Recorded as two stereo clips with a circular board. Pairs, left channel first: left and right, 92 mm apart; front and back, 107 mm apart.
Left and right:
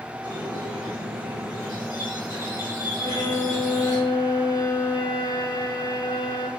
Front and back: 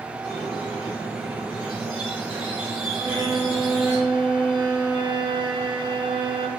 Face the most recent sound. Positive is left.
turn(degrees=130)